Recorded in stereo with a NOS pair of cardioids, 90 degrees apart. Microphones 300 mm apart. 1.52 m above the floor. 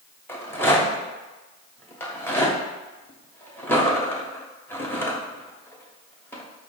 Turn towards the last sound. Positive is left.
turn(degrees=5)